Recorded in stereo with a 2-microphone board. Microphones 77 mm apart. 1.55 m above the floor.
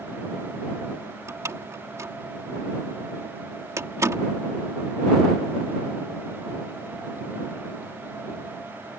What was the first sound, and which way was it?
A door slam, 40° right (ahead or behind).